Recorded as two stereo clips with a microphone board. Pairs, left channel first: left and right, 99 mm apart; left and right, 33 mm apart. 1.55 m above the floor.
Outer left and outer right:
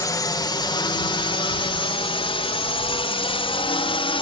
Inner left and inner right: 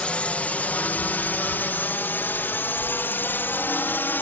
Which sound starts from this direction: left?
A drone, at 0.0 s.